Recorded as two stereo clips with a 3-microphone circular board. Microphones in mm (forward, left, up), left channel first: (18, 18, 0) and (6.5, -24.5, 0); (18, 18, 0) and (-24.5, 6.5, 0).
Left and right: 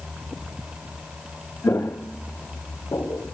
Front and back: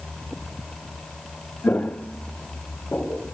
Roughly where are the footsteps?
Ahead left.